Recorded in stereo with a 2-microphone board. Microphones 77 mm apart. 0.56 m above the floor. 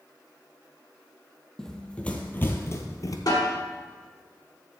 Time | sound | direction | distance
1.6 | running footsteps | 5° left (ahead or behind) | 1.2 m
3.3 | a snare drum | 60° left (ahead or behind) | 2 m